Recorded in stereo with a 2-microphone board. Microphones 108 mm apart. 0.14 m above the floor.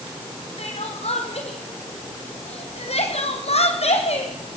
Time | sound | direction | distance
0.6 | crying | 70° left (ahead or behind) | 3 m